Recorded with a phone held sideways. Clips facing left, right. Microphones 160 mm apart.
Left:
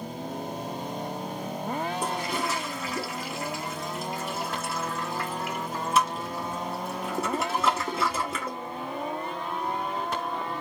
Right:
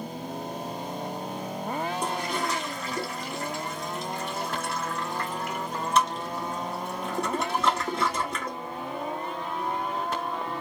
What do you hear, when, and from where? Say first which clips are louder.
2.0 s a toilet flushing: even; 5° left (ahead or behind), 1.1 m